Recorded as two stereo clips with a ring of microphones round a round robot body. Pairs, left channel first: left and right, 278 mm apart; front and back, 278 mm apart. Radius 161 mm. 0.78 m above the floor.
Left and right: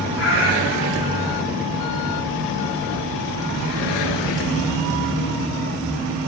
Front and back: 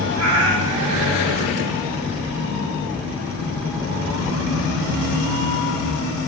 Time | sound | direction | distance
0.2 | a cat meowing | 140° left | 8 m